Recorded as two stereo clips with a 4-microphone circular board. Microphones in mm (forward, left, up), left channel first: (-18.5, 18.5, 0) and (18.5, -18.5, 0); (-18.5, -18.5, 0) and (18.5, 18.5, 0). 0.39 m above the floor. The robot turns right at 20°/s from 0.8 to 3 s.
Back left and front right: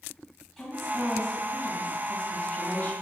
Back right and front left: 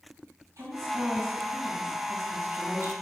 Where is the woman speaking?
50° left, 2.5 m; by 2.9 s 90° left, 2.5 m.